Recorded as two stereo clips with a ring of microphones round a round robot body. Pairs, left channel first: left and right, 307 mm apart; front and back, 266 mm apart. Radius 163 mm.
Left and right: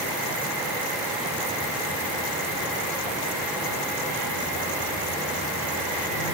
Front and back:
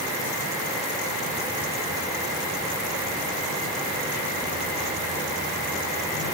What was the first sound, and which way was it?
Only background noise.